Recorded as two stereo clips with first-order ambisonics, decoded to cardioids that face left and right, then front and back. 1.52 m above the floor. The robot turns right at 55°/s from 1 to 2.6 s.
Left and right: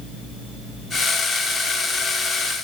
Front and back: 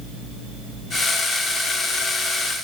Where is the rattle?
I don't hear a rattle.